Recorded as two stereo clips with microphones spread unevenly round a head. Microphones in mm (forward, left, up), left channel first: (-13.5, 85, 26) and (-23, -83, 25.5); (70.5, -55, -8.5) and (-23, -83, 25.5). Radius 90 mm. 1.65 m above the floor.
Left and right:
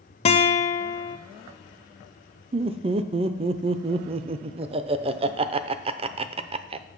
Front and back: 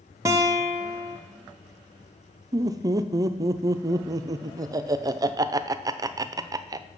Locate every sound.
0.2 s a guitar: 140° left, 0.6 m
2.5 s laughter: 145° right, 0.5 m